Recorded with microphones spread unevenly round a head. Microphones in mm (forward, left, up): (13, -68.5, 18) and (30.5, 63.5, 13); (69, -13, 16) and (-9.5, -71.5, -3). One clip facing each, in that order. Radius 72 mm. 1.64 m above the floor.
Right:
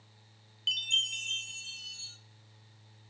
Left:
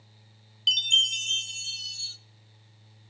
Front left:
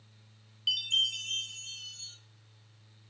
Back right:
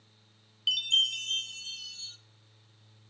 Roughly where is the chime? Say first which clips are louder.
Left 7 dB, back right 2 dB; behind left.